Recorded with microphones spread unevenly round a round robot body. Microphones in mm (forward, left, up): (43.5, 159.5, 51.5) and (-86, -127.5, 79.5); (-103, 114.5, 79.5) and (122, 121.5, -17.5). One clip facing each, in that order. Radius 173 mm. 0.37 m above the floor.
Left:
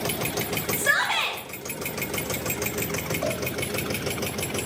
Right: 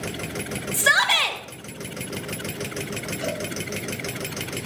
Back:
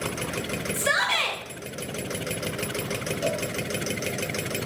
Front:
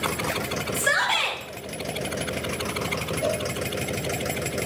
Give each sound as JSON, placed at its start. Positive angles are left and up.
{"t": 0.7, "sound": "a shout", "azimuth_deg": -95, "distance_m": 1.6}
{"t": 3.2, "sound": "a cowbell", "azimuth_deg": -90, "distance_m": 4.5}